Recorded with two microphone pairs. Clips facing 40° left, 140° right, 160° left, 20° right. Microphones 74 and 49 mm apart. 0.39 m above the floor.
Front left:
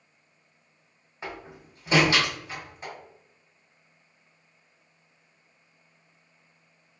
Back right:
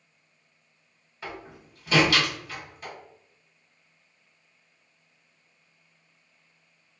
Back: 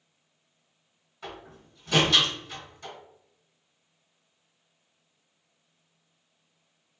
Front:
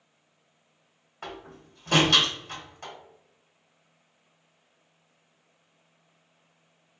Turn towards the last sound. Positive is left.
turn(degrees=-20)